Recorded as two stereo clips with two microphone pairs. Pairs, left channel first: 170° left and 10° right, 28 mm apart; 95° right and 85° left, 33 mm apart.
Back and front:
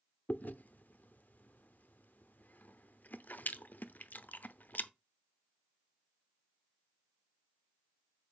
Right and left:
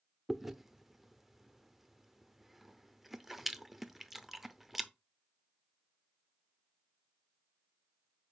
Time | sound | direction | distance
0.3 | chewing | 160° left | 0.6 m